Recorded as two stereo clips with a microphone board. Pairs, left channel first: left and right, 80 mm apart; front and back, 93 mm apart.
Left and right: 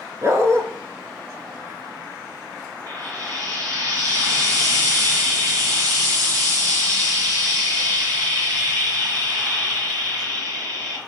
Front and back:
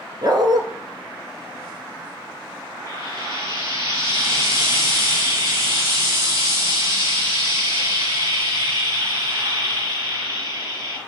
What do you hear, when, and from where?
0.2 s a dog barking: 140° right, 0.8 m
2.9 s frying: 125° right, 4.5 m